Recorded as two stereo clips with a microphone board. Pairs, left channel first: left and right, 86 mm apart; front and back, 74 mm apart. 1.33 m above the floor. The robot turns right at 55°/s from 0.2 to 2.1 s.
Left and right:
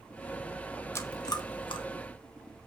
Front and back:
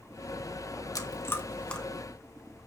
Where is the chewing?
35° left, 1.4 m; by 1.9 s 85° left, 1.4 m.